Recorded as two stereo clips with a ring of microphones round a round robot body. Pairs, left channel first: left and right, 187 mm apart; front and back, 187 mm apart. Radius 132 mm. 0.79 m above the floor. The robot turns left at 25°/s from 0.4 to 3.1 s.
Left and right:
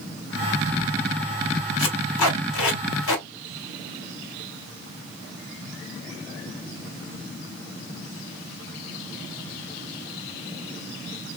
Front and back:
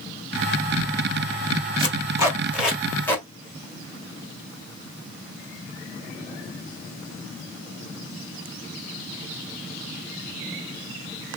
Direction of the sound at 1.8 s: 115° left.